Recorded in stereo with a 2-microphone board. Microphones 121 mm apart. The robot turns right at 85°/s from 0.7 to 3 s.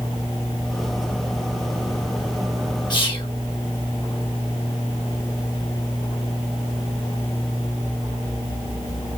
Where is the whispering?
35° left (ahead or behind), 1.7 m; by 3.3 s 45° left (ahead or behind), 1.7 m.